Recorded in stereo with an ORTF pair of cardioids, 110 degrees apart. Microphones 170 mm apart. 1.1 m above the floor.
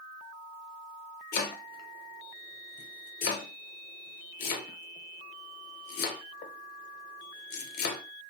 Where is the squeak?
No squeak in this recording.